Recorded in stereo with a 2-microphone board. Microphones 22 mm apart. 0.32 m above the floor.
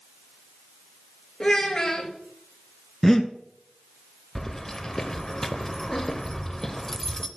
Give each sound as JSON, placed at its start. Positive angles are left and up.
{"t": 1.4, "sound": "a child speaking", "side_deg": 25, "distance_m": 3.0}
{"t": 3.0, "sound": "breathing", "side_deg": 15, "distance_m": 0.8}
{"t": 4.3, "sound": "keys jangling", "side_deg": 20, "distance_m": 0.7}